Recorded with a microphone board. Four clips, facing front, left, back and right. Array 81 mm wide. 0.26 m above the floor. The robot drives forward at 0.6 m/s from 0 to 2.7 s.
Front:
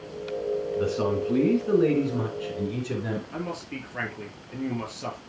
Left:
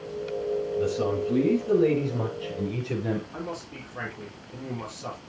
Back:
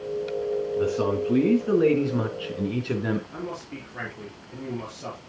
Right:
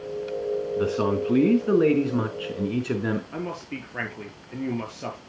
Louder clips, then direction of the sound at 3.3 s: Right 3 dB, front 1 dB; 75° right.